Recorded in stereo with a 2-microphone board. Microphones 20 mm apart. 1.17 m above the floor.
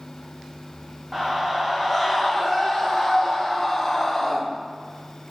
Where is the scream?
30° right (ahead or behind), 1.8 m; by 4.4 s 25° left (ahead or behind), 3 m.